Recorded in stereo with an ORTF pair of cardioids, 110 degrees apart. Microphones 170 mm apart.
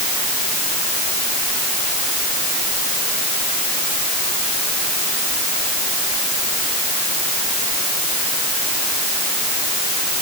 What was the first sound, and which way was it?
Only background noise.